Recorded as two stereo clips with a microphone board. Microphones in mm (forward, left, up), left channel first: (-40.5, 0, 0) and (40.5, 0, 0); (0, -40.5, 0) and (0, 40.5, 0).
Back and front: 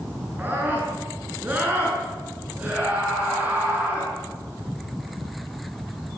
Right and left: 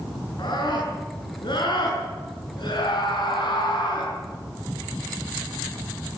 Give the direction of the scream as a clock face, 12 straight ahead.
2 o'clock.